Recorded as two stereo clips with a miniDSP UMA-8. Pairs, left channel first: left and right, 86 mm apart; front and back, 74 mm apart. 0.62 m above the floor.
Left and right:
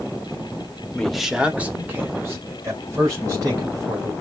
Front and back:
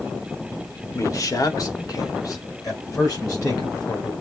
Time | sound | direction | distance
0.9 | a man speaking | 15° left | 0.8 m